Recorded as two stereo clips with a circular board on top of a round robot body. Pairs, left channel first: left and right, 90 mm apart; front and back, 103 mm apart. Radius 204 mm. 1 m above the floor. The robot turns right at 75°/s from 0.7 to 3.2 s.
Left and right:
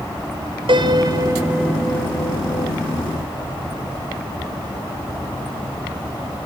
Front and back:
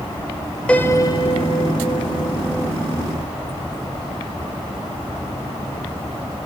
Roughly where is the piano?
Right.